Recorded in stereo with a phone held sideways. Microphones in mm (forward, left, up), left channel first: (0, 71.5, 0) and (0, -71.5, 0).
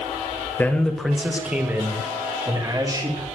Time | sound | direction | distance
0.6 | a man speaking | 15° left (ahead or behind) | 1.6 m